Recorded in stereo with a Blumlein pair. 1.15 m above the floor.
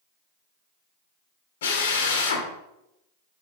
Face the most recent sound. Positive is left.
turn(degrees=60)